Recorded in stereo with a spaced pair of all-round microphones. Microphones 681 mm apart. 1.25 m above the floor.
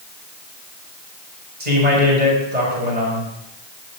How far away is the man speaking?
About 8 m.